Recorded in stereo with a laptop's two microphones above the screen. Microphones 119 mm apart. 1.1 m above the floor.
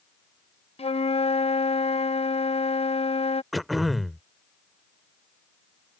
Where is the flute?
60° left (ahead or behind).